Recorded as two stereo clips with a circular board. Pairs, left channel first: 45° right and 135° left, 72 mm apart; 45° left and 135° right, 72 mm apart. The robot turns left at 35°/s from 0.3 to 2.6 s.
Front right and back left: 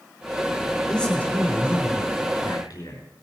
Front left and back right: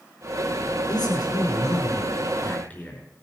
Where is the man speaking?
35° left, 5 m; by 3.0 s 25° right, 5 m.